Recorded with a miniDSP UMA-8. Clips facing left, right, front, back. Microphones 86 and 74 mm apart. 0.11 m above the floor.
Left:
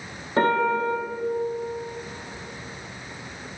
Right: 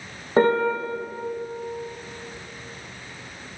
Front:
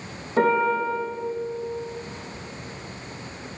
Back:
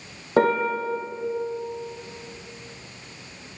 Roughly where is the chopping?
I don't hear chopping.